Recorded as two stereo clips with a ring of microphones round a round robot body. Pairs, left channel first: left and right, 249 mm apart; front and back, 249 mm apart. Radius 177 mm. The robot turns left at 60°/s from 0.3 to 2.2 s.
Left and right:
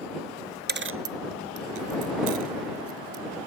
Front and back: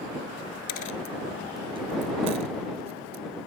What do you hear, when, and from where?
0.7 s a dropped coin: 40° right; by 3.2 s 130° right